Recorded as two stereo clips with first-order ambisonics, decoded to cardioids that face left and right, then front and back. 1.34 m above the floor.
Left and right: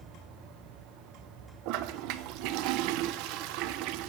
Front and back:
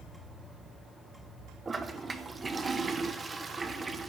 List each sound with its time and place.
1.6 s a toilet flushing: 105° right, 1.0 m